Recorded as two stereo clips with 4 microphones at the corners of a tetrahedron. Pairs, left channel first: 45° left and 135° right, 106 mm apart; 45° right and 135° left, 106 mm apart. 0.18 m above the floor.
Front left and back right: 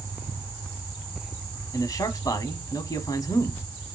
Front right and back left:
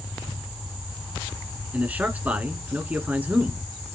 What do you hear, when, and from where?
1.7 s a man speaking: 70° left, 1.4 m